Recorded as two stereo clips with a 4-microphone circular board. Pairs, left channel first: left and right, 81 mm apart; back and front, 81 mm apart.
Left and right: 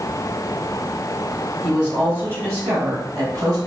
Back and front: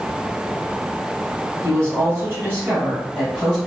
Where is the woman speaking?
25° right, 1.8 m; by 3.6 s 80° right, 2 m.